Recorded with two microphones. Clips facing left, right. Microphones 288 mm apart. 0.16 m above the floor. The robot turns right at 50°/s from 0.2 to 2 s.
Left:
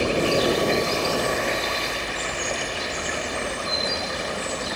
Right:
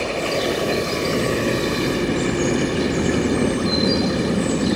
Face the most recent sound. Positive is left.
turn(degrees=-55)  # may be behind; listen again after turning